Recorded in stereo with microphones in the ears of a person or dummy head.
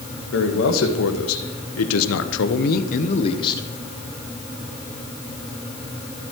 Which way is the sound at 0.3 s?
65° left (ahead or behind).